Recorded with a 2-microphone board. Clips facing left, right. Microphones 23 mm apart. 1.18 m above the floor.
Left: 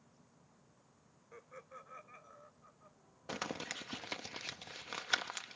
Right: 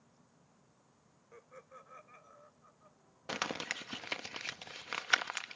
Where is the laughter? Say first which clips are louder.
Left 1 dB; 20° left (ahead or behind); by 3.0 s 5° left (ahead or behind).